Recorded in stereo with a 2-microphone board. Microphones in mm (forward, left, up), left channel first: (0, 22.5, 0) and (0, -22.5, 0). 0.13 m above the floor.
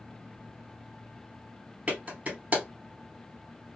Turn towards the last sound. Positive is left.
turn(degrees=-35)  # may be behind; listen again after turning